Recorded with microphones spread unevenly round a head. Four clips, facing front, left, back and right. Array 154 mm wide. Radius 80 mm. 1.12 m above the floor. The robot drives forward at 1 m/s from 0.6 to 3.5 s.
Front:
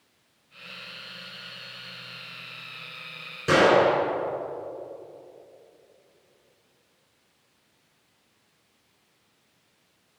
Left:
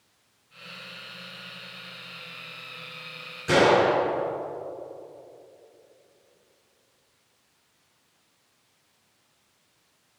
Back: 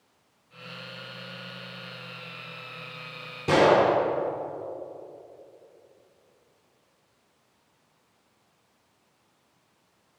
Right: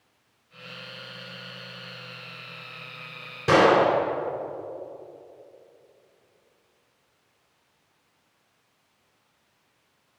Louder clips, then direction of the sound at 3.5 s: Right 1 dB, even; 120° right.